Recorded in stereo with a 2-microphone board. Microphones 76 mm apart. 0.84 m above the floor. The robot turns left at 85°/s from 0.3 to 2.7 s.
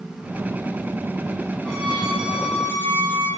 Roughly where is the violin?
Ahead.